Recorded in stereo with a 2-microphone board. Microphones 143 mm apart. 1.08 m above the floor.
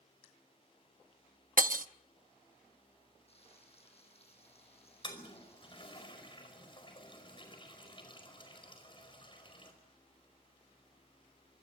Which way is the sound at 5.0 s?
35° left (ahead or behind).